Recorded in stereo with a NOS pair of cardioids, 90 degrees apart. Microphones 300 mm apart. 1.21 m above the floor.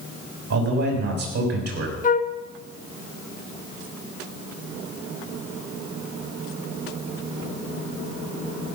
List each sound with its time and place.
0.5 s a man speaking: 60° right, 6.5 m
2.0 s a flute: 25° left, 1.0 m